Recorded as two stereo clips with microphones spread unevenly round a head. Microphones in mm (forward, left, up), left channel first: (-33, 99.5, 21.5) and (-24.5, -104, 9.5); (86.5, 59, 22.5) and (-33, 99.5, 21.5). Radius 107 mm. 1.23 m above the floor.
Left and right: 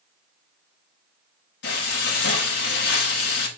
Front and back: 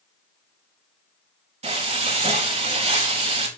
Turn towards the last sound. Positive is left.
turn(degrees=125)